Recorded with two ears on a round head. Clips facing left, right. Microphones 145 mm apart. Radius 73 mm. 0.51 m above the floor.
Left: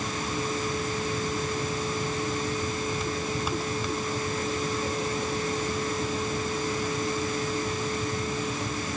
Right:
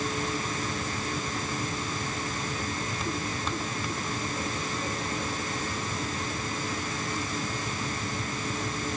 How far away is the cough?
No cough in this recording.